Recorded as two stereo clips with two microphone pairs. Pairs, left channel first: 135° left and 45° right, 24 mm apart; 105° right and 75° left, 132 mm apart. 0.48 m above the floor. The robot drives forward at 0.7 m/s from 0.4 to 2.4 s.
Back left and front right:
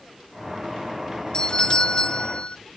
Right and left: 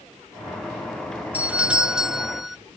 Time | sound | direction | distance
1.3 | a doorbell | 145° left | ?